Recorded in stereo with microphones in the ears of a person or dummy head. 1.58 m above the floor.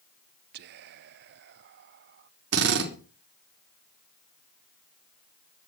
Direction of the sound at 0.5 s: 50° right (ahead or behind).